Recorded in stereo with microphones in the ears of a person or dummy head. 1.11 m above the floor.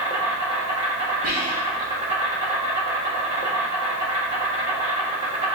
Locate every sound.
0.0 s an insect: 35° right (ahead or behind), 1.1 m
1.2 s whispering: 65° right (ahead or behind), 1.3 m